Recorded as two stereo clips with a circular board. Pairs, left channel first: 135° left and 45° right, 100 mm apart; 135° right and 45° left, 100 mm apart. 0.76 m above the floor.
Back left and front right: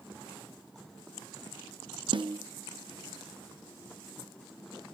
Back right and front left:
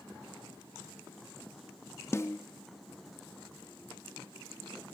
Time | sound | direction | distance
2.1 | a snare drum | 75° right | 0.6 m